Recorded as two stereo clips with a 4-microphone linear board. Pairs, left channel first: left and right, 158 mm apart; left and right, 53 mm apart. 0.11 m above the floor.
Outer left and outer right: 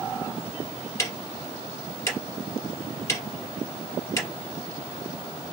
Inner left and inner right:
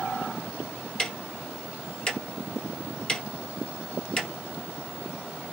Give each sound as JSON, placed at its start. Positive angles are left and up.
{"t": 1.0, "sound": "ticking", "side_deg": 20, "distance_m": 2.0}